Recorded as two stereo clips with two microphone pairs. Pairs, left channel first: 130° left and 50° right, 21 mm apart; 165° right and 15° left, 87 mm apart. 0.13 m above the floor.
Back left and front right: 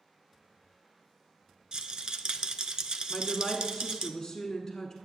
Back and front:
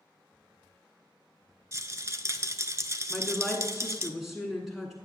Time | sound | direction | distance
1.7 | a rattle | 25° right | 0.6 m
3.1 | a woman speaking | 95° left | 1.2 m